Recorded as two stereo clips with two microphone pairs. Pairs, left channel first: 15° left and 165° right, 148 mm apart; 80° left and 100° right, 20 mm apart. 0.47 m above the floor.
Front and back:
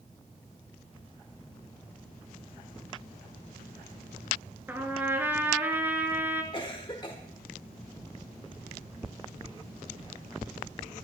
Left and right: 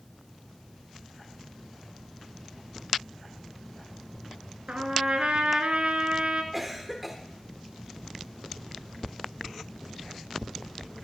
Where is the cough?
15° right, 1.3 m.